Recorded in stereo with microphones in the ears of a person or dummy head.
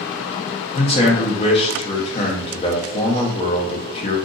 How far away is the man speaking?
About 0.9 m.